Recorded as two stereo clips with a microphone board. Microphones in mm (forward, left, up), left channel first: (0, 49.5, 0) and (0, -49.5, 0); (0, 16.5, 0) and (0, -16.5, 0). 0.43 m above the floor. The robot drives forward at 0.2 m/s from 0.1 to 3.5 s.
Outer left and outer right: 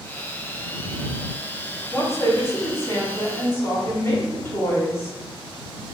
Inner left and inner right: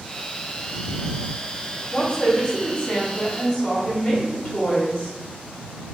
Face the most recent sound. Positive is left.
turn(degrees=25)  # may be behind; listen again after turning